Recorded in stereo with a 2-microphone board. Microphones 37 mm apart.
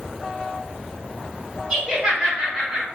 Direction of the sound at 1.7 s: 20° right (ahead or behind).